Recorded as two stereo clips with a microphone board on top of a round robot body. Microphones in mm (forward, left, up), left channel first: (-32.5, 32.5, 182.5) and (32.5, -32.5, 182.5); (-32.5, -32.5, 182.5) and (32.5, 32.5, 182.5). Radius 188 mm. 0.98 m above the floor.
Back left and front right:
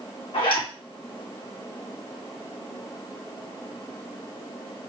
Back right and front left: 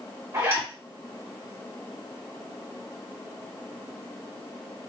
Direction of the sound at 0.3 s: 110° left.